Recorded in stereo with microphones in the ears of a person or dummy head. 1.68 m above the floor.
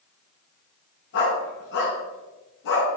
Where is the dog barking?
65° left (ahead or behind), 6 m.